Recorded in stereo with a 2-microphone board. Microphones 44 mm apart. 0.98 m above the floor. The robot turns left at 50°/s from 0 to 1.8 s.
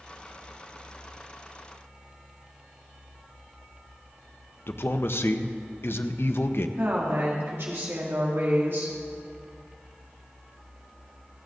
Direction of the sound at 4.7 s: 60° left (ahead or behind).